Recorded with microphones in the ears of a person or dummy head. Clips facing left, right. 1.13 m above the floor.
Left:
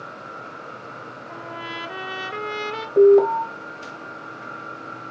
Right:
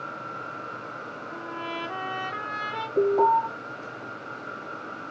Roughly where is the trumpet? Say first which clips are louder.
Even; left.